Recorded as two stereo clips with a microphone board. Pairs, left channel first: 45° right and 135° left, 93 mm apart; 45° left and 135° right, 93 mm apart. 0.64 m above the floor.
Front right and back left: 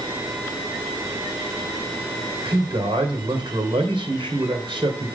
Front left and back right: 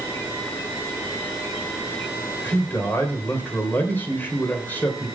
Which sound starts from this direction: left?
A man speaking, at 2.4 s.